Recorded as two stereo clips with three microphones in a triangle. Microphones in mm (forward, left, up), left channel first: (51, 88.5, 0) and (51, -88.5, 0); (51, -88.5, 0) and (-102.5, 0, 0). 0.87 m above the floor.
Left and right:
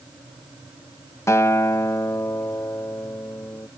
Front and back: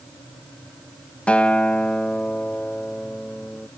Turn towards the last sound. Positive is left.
turn(degrees=40)